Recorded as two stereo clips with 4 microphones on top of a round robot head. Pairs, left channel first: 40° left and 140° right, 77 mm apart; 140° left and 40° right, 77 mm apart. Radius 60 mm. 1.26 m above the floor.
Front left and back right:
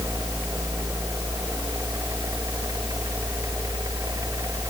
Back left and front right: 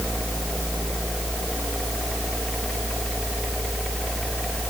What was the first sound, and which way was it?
Only background noise.